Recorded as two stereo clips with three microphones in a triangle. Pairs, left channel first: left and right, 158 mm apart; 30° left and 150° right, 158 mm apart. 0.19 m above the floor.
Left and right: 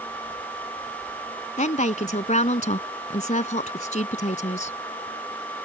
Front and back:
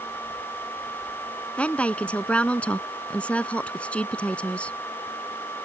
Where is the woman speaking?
110° left.